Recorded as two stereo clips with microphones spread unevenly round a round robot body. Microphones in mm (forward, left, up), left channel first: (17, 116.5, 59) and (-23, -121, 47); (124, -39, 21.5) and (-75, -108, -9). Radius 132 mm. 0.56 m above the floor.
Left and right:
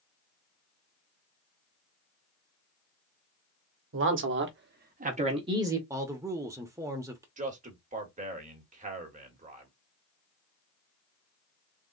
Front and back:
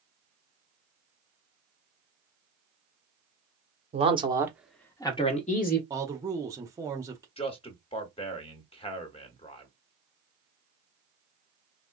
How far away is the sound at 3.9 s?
About 1.2 m.